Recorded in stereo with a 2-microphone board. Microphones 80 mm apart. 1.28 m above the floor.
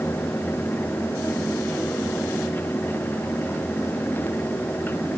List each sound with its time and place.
Only background noise.